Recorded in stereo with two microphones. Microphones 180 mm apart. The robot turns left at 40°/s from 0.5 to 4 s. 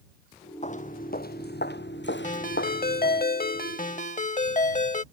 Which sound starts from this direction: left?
Footsteps, at 0.6 s.